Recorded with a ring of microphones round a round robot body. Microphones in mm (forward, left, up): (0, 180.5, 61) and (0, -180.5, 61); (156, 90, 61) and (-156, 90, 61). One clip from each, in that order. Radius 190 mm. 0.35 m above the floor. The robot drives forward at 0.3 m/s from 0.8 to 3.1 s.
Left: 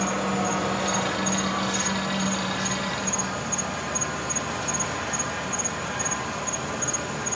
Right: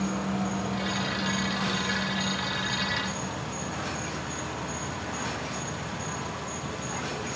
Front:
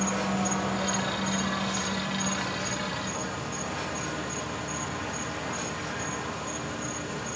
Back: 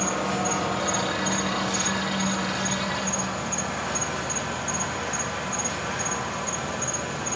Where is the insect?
110° left, 1.7 m; by 7.4 s 130° left, 2 m.